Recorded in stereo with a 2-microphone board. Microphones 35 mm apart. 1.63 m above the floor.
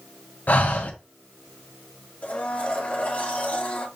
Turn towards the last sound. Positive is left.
turn(degrees=45)  # may be behind; listen again after turning